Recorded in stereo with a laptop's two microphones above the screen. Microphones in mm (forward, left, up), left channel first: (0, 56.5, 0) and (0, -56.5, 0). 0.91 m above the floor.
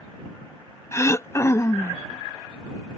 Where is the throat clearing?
25° left (ahead or behind).